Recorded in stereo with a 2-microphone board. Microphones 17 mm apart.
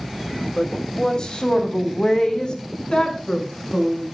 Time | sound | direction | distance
0.6 | a woman speaking | 35° left (ahead or behind) | 2 m